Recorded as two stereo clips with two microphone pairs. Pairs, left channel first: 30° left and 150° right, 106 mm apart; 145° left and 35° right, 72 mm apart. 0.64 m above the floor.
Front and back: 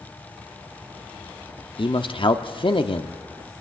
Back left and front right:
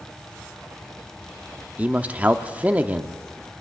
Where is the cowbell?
No cowbell in this recording.